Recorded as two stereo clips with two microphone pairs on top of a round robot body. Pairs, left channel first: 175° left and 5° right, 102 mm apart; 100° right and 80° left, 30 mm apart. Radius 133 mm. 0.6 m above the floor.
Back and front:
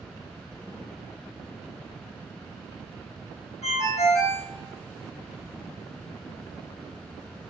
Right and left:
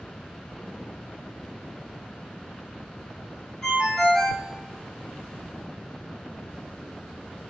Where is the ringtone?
170° right, 1.9 m.